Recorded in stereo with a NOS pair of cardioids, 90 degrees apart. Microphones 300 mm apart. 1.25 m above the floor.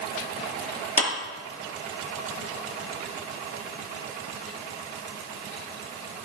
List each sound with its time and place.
1.0 s a clap: 25° left, 2.5 m